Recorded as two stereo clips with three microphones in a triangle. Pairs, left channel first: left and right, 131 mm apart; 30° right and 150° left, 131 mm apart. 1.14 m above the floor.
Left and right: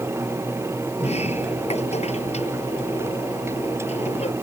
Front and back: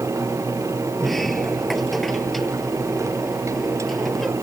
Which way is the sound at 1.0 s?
60° left.